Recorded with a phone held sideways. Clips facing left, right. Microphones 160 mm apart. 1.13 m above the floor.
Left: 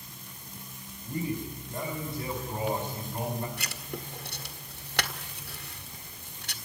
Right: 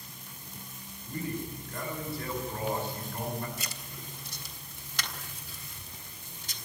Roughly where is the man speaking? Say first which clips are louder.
Left 3 dB; centre.